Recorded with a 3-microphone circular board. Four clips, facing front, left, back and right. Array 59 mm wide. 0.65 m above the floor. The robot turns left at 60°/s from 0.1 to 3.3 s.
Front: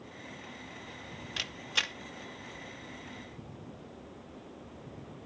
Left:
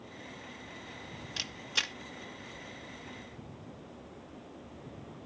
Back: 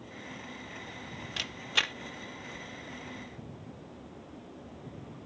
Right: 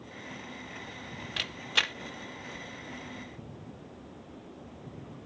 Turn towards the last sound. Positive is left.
turn(degrees=155)